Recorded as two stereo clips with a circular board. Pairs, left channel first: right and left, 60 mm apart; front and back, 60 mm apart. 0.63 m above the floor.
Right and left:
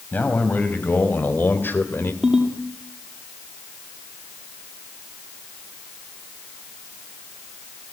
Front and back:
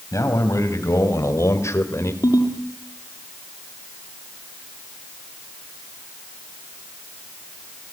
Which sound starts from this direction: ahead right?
A man speaking, at 0.1 s.